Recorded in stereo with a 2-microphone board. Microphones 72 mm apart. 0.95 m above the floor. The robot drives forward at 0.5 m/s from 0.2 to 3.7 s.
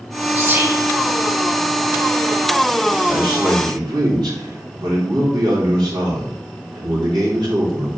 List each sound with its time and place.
0.3 s whispering: 25° right (ahead or behind), 0.9 m; by 0.9 s 30° right (ahead or behind), 0.8 m
3.0 s a man speaking: 75° right (ahead or behind), 2.5 m